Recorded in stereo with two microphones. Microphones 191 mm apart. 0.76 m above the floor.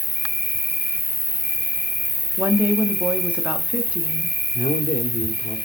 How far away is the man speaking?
About 2.0 m.